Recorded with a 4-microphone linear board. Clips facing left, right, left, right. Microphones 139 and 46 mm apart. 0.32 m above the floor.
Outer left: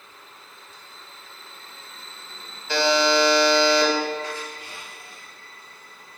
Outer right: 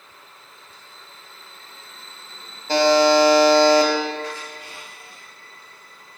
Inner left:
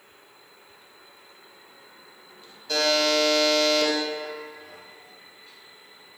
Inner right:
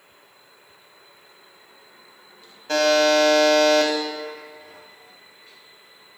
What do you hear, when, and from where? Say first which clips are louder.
2.7 s a buzzer: outer right 5 dB, inner right 5 dB; 45° right (ahead or behind), 0.9 m